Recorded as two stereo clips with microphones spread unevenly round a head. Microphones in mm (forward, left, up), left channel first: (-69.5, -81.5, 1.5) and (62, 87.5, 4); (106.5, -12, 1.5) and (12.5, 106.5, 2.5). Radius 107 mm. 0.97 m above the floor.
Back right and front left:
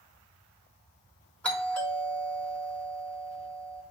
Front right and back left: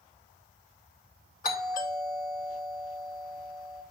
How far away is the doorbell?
About 3 m.